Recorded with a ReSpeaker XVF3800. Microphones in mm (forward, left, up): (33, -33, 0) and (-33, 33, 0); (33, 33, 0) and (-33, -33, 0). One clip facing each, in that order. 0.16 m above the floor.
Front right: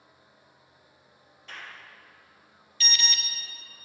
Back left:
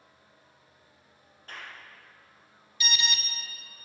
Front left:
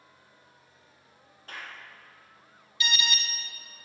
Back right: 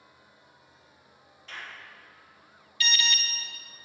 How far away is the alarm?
About 0.9 m.